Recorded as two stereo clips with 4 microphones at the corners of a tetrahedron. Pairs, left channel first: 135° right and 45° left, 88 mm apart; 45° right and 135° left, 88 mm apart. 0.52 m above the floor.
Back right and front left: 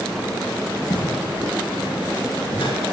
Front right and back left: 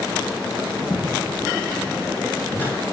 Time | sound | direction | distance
0.9 | footsteps | 105° right | 8.5 m